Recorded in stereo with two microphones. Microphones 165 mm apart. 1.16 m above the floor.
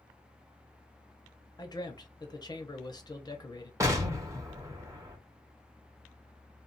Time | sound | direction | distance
1.6 | a man speaking | 25° left (ahead or behind) | 0.8 m
3.8 | an explosion | 20° right (ahead or behind) | 0.9 m